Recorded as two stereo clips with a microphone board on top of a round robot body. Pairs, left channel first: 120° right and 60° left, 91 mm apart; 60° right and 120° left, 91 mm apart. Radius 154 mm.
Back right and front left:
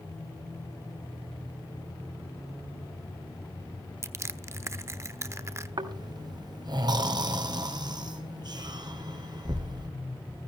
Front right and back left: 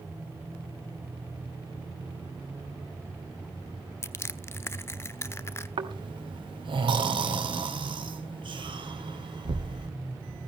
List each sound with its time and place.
4.0 s crushing: straight ahead, 1.0 m
5.8 s snoring: 100° left, 2.5 m